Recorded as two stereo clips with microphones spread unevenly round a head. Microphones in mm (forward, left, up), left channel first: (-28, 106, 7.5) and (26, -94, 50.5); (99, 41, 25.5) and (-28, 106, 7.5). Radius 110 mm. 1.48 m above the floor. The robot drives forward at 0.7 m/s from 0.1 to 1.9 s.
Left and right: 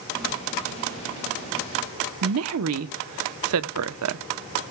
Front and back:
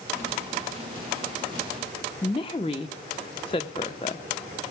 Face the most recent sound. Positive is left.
turn(degrees=-95)